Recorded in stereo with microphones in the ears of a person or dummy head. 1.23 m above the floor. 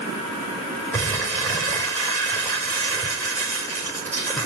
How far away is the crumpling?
About 5 m.